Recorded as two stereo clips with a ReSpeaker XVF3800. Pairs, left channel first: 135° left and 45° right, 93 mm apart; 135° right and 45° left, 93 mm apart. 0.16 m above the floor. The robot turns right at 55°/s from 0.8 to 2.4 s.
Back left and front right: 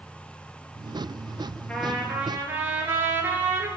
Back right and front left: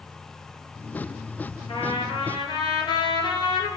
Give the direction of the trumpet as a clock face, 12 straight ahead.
5 o'clock.